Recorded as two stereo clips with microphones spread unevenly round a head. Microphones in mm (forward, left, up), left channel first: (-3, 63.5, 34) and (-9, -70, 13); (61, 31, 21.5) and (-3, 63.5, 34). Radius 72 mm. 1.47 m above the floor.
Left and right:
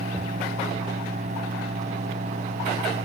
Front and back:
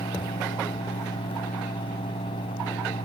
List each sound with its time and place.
0.0 s a fan: 50° right